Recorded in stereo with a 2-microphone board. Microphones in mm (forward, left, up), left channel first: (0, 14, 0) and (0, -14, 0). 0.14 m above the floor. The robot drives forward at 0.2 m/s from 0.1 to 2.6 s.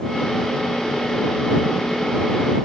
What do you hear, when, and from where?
Only background noise.